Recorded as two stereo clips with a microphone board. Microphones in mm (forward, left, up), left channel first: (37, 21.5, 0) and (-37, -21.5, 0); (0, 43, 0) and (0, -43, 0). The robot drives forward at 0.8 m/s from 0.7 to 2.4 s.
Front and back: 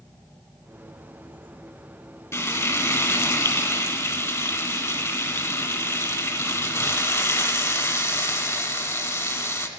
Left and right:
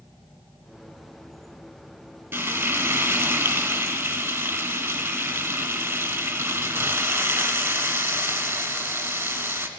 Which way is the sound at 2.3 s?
25° right.